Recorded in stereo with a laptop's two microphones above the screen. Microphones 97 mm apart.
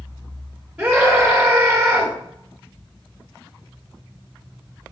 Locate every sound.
0.8 s a scream: 5° right (ahead or behind), 1.8 m